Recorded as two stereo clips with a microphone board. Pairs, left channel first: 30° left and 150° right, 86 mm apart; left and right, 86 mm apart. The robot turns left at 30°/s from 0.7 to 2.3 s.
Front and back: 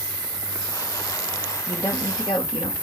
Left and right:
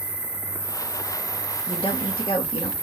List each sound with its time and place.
0.0 s an insect: 150° left, 2 m; by 2.8 s 105° left, 2 m
1.7 s a woman speaking: 85° left, 1.9 m; by 2.7 s 65° left, 1.9 m